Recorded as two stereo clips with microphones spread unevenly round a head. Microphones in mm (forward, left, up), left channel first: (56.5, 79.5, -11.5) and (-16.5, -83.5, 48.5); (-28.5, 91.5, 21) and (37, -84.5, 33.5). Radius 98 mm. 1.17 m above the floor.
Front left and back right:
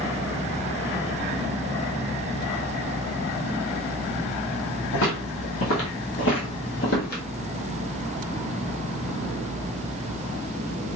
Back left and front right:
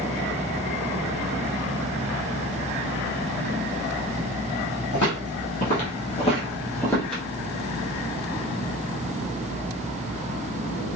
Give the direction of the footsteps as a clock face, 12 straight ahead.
8 o'clock.